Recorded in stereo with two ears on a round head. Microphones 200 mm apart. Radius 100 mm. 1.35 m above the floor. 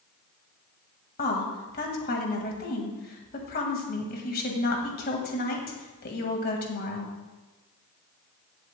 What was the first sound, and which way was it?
A woman speaking, 40° left (ahead or behind).